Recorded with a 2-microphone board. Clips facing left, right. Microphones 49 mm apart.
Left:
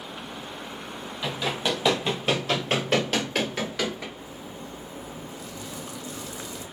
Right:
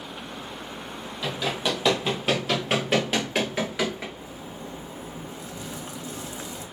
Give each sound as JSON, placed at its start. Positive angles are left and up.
{"t": 1.2, "sound": "running footsteps", "side_deg": 5, "distance_m": 2.0}
{"t": 4.2, "sound": "a zipper", "side_deg": -35, "distance_m": 1.1}